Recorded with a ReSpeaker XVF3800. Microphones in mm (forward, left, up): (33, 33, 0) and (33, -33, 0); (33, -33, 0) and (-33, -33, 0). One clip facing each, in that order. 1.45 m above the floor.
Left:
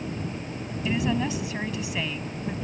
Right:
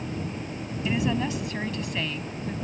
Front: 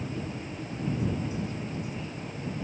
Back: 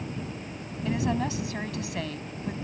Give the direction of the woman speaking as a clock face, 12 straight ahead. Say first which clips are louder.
Even, back 4 dB; 6 o'clock.